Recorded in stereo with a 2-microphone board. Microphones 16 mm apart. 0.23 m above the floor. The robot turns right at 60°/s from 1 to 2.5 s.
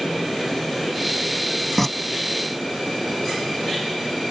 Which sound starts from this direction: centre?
Tearing paper, at 1.8 s.